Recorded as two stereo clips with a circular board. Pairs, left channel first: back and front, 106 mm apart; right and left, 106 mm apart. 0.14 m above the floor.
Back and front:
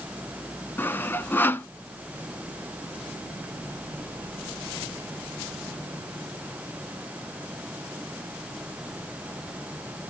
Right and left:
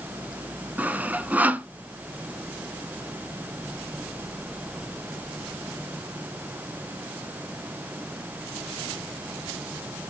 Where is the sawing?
140° left, 0.6 m.